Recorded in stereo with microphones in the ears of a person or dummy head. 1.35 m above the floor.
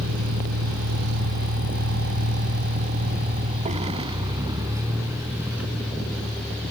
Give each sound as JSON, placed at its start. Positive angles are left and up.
{"t": 0.0, "sound": "a vehicle", "side_deg": -70}